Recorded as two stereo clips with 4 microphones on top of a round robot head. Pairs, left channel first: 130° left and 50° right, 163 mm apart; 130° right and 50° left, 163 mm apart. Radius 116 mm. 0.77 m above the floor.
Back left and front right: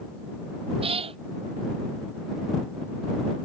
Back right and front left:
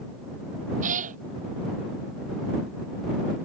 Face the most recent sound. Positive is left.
turn(degrees=5)